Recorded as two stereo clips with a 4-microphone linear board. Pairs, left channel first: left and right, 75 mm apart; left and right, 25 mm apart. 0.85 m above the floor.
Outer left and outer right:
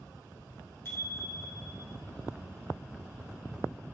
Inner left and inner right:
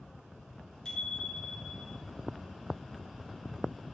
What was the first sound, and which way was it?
A bicycle bell, 35° left (ahead or behind).